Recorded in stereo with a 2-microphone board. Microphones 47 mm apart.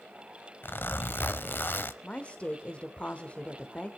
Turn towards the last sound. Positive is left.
turn(degrees=30)  # may be behind; listen again after turning